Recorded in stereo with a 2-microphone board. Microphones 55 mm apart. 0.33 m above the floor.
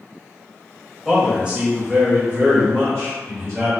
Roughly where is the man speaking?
Centre.